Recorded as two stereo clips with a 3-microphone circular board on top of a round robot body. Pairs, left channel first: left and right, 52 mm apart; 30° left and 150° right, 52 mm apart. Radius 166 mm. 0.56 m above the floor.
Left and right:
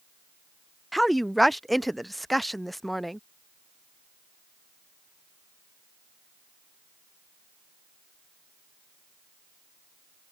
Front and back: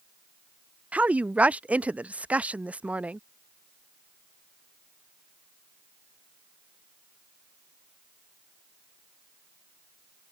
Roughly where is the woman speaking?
Behind.